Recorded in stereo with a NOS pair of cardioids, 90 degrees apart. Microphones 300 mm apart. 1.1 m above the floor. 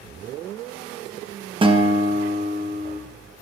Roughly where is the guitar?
Ahead.